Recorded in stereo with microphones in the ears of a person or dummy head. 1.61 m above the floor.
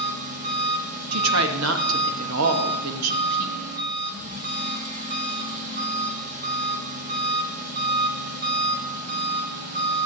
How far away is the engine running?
About 1.6 m.